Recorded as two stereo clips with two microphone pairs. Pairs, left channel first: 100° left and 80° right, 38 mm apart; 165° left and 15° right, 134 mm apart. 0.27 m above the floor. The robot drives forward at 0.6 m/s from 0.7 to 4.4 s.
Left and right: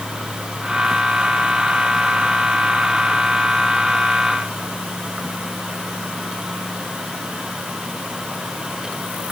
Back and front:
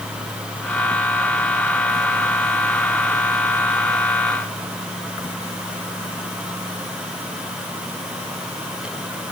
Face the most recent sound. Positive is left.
No sound to turn to.